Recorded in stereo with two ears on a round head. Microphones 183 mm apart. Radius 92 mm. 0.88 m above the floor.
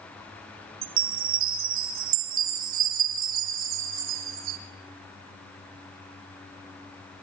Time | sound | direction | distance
0.8 | a chime | 70° right (ahead or behind) | 3 m